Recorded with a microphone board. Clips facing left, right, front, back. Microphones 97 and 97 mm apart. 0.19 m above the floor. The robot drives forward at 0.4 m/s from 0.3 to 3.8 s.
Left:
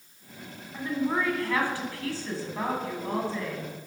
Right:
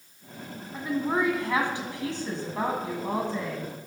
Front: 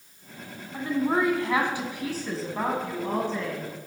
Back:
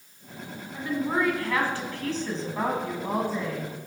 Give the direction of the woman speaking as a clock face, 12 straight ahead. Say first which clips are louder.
Right 1 dB, front 2 dB; 1 o'clock.